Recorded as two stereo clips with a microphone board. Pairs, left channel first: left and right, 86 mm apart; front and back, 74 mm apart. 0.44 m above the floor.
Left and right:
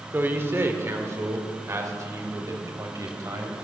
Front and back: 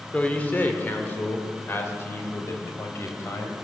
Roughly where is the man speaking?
Ahead right.